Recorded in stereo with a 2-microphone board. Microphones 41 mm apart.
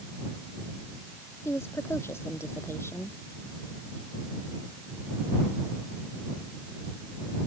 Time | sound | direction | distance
1.4 | a woman speaking | 80° left | ?